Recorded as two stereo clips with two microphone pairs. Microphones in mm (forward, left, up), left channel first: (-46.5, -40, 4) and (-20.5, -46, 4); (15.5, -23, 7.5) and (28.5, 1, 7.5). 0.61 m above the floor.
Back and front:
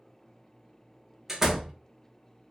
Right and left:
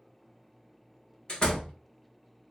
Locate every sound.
1.3 s a door slam: 85° right, 0.7 m